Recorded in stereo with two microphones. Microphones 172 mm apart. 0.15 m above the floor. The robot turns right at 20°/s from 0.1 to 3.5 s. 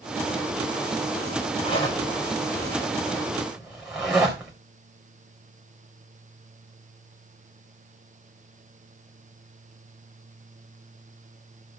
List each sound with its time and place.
1.6 s a zipper: 35° left (ahead or behind), 4 m; by 4.5 s 5° right (ahead or behind), 4 m